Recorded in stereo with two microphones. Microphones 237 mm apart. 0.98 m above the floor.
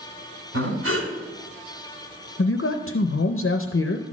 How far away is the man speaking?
About 0.6 m.